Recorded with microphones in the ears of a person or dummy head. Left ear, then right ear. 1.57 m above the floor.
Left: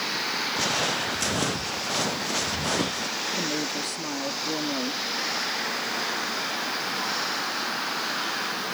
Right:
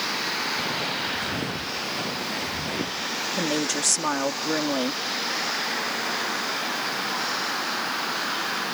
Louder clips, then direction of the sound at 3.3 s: Right 3 dB; 55° right (ahead or behind).